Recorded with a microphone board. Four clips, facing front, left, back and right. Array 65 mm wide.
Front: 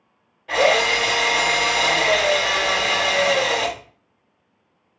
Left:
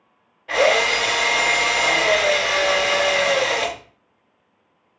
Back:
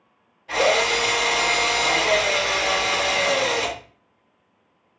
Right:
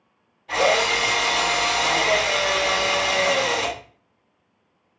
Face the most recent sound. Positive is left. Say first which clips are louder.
# left 2 dB, front 2 dB
turn(degrees=60)